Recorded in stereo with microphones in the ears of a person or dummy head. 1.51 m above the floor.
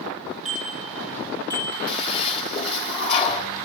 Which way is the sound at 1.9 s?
40° left (ahead or behind).